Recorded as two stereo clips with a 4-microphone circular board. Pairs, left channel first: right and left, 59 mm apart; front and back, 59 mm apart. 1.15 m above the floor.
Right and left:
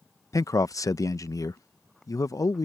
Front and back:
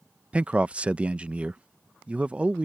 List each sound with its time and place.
0.3 s a man speaking: 110° right